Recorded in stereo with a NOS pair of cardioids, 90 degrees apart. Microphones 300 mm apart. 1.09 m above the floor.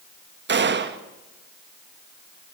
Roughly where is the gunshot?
Ahead right.